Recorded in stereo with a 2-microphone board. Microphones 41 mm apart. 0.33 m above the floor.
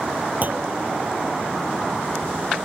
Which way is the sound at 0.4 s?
45° right (ahead or behind).